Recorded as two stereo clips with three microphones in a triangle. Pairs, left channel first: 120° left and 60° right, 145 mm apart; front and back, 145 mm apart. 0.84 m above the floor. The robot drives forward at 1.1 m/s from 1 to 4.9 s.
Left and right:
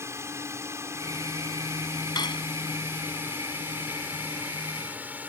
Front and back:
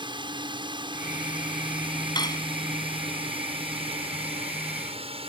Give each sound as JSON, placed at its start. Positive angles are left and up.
{"t": 0.0, "sound": "a drone", "azimuth_deg": -130}
{"t": 2.1, "sound": "cutlery clinking", "azimuth_deg": 60}